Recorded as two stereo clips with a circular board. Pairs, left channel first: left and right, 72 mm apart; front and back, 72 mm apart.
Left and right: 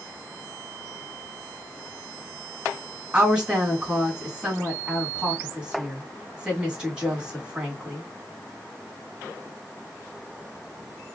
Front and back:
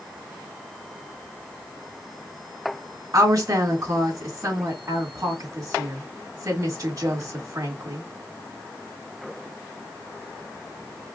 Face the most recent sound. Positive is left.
turn(degrees=-165)